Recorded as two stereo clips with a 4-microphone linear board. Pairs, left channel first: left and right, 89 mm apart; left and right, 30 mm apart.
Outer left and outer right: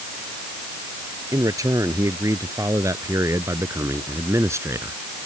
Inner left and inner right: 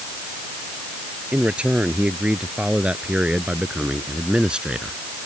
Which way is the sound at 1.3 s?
40° right (ahead or behind).